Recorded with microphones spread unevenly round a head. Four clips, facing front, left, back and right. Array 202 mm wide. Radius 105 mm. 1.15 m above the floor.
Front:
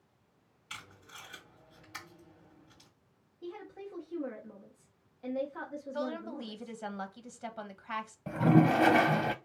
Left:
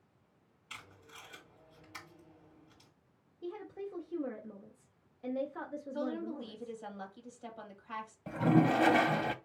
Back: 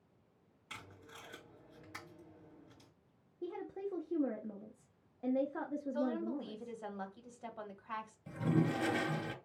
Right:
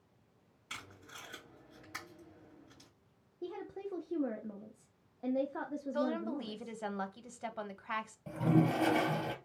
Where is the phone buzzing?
No phone buzzing in this recording.